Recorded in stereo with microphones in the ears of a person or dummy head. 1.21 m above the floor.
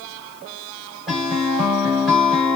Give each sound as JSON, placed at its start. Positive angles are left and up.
{"t": 1.1, "sound": "a guitar", "side_deg": -5, "distance_m": 2.5}